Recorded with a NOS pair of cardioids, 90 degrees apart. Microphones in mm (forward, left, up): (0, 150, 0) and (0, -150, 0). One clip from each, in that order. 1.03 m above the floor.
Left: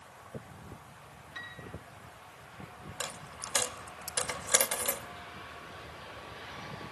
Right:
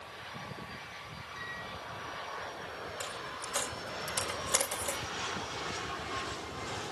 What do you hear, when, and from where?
1.4 s a piano: 60° left, 9.5 m
3.0 s a dropped coin: 40° left, 2.5 m